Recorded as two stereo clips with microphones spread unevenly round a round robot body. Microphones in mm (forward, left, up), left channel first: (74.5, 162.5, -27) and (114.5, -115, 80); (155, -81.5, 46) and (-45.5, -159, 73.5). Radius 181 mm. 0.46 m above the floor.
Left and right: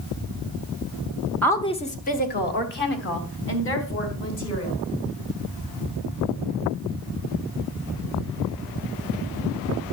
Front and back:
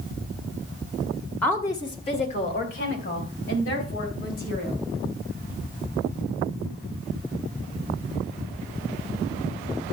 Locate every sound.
1.4 s a woman speaking: 85° left, 1.1 m; by 4.8 s 70° left, 5 m